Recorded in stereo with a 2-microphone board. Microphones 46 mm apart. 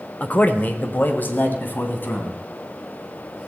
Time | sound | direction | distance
0.2 | a man speaking | 30° left (ahead or behind) | 1.1 m